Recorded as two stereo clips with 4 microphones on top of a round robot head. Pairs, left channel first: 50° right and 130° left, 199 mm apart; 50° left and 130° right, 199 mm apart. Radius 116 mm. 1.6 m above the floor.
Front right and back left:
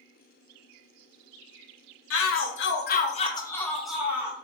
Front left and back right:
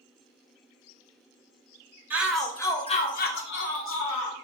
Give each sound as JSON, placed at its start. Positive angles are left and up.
{"t": 2.1, "sound": "a shout", "azimuth_deg": -45, "distance_m": 0.8}